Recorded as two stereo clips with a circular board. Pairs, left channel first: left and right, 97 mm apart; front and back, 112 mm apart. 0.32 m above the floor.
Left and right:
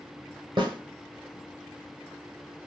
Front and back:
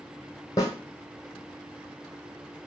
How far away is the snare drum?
About 2.0 m.